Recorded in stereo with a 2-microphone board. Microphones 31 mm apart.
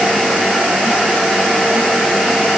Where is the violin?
I don't hear a violin.